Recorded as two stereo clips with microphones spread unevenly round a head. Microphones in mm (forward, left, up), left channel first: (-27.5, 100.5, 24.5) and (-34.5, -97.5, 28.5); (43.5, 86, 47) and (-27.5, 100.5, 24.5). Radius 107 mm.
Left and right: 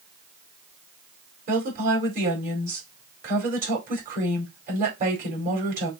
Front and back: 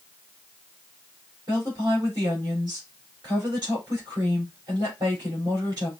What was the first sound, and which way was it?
A woman speaking, 140° right.